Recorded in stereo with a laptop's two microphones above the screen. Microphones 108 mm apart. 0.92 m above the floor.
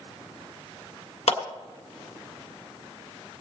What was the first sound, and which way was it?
A clap, 70° left (ahead or behind).